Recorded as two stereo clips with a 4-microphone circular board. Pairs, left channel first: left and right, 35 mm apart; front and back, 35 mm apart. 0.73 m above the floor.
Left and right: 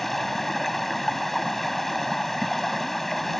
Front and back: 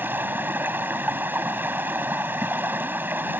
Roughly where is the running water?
Behind.